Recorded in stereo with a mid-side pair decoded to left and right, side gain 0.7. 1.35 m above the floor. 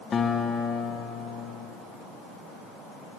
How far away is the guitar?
About 0.8 m.